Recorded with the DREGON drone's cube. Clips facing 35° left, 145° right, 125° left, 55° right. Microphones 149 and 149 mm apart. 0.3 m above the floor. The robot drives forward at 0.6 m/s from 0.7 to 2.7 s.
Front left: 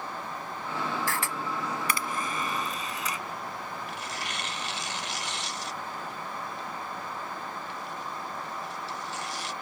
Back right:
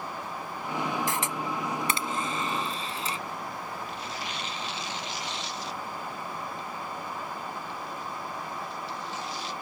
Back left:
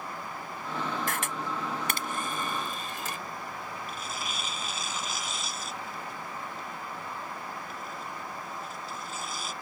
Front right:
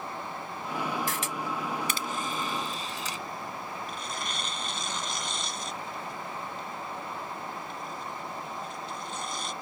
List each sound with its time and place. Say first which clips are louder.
1.1 s a camera shutter: back right 1 dB, even; 145° left; by 3.2 s 155° left
3.9 s tearing paper: back right 1 dB, front right 1 dB; 40° left